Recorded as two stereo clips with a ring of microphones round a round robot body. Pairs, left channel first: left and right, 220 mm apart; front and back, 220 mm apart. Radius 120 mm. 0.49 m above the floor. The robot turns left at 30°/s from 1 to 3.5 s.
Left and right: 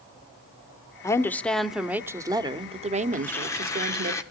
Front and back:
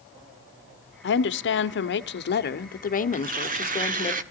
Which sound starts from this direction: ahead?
A woman speaking, at 1.0 s.